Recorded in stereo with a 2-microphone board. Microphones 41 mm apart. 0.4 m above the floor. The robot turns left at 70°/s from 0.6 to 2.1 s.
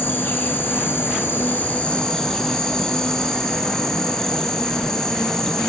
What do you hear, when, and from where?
0.0 s an insect: 120° left, 4 m; by 5.7 s 15° left, 4 m